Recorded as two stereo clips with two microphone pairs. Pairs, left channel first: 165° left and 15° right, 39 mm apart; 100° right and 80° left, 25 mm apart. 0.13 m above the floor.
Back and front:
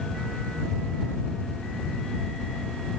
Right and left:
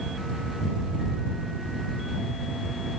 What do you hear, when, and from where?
Only background noise.